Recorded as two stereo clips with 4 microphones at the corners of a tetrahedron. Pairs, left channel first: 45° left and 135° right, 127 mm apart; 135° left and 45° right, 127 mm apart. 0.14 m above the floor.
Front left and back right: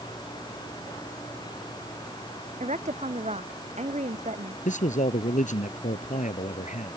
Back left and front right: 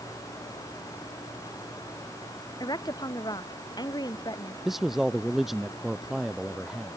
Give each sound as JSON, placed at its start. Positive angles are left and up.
{"t": 2.6, "sound": "a woman speaking", "azimuth_deg": -165}
{"t": 4.7, "sound": "a man speaking", "azimuth_deg": 40}